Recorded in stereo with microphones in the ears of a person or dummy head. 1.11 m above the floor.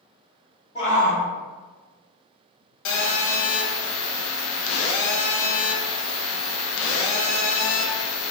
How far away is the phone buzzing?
About 0.5 m.